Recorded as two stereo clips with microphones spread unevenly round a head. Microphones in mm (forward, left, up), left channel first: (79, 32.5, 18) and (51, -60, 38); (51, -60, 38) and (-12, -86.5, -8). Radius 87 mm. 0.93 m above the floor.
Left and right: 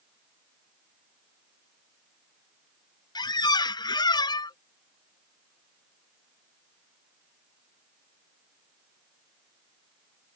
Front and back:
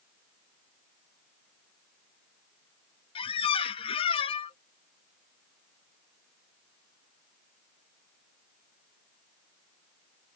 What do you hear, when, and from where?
3.1 s a squeak: 35° left